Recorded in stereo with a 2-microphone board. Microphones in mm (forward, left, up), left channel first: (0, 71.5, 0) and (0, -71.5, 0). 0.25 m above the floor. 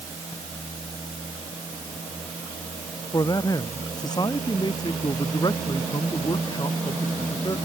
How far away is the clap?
I don't hear a clap.